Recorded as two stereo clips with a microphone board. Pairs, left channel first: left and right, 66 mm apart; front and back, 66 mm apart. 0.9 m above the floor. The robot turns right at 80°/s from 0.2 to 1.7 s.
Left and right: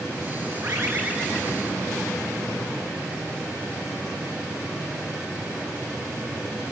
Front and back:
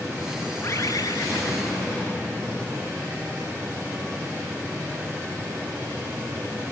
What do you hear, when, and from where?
0.6 s a bird: 60° right, 7.5 m; by 1.8 s 30° left, 7.5 m